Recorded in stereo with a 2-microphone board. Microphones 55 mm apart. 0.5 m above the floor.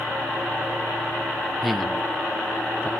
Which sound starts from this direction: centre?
A man speaking, at 1.6 s.